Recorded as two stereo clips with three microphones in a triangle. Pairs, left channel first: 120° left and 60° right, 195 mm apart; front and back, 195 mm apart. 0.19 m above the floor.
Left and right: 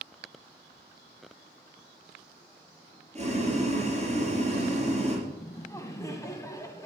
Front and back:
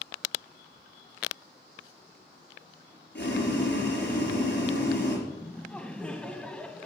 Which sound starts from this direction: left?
Laughter, at 5.3 s.